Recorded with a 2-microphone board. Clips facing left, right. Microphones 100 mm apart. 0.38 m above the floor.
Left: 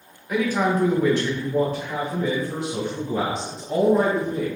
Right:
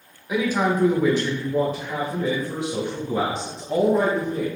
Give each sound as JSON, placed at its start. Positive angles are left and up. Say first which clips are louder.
{"t": 0.3, "sound": "a man speaking", "louder": "even", "side_deg": -10, "distance_m": 0.8}